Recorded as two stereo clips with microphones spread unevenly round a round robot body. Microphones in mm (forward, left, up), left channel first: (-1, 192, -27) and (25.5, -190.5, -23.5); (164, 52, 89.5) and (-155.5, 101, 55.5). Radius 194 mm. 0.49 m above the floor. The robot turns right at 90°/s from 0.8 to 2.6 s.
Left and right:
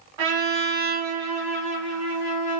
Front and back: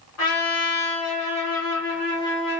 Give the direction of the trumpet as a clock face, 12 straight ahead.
2 o'clock.